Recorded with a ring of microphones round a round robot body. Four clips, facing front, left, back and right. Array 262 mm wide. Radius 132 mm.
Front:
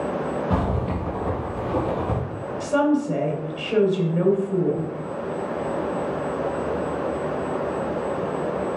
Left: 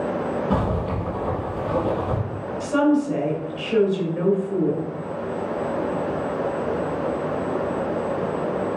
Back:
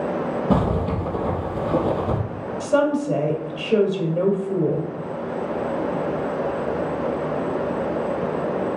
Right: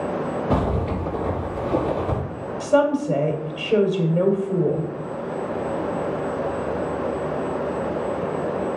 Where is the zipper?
150° right, 3.5 m.